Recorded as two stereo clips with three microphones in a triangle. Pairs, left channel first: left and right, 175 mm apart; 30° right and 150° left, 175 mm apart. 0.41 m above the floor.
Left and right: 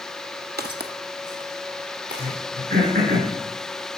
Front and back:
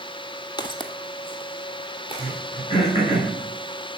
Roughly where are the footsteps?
Right.